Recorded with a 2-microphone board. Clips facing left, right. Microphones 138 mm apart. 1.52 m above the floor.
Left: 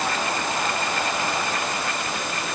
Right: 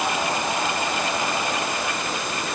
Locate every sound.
Only background noise.